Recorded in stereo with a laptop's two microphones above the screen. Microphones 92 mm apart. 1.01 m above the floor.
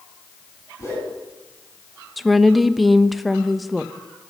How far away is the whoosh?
About 8 m.